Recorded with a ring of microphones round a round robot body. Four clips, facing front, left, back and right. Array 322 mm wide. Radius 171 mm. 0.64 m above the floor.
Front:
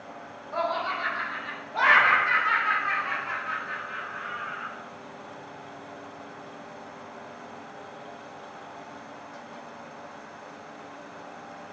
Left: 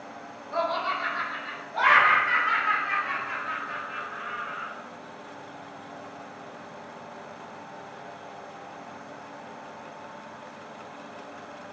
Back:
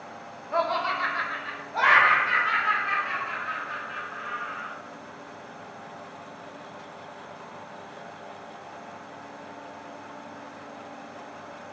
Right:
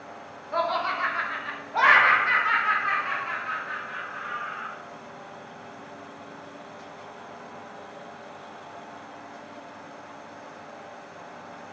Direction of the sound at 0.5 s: 150° right.